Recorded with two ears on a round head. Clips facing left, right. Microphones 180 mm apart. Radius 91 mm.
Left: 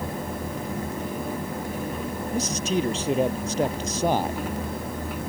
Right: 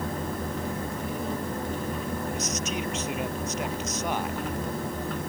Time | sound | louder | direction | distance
2.3 | a man speaking | left 5 dB | 25° left (ahead or behind) | ?